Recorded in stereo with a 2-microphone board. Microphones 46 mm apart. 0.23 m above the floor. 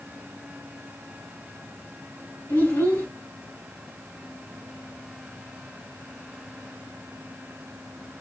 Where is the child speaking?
60° left (ahead or behind), 1.9 m.